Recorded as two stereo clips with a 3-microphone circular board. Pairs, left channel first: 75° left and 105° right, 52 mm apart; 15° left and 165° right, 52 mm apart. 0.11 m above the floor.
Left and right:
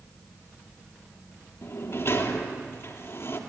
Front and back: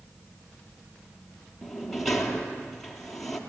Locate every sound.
1.6 s a sliding door: 100° left, 2.5 m